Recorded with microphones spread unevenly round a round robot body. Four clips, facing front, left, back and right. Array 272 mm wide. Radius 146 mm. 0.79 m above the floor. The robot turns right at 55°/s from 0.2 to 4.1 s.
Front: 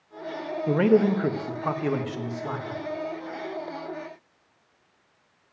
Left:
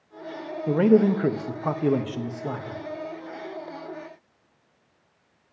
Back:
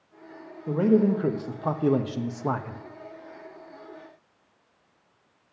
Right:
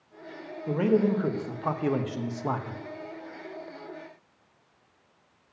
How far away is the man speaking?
About 0.8 m.